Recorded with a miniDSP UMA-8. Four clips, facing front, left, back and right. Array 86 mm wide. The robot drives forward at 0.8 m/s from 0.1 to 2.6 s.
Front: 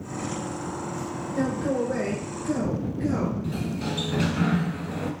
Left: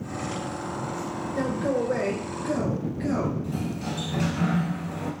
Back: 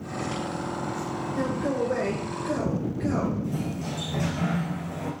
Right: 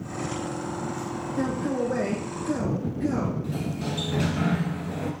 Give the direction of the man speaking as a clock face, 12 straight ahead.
9 o'clock.